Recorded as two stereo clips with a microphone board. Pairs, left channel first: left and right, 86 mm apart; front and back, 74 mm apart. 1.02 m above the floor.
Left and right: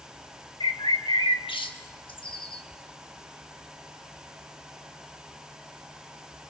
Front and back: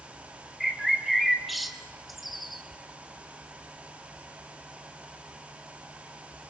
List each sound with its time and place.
0.6 s a bird: 90° left, 1.3 m